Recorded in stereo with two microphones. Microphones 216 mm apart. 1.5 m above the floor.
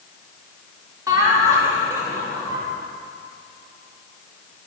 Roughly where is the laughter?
Centre.